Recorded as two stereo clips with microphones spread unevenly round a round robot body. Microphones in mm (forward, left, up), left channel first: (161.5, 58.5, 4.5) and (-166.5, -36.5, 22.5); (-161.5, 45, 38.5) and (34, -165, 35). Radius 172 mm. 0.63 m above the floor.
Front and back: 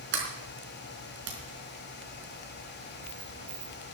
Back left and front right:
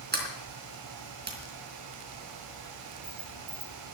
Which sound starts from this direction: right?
A sliding door, at 0.1 s.